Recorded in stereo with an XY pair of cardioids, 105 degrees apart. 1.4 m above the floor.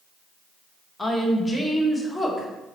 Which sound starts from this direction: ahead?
A woman speaking, at 1.0 s.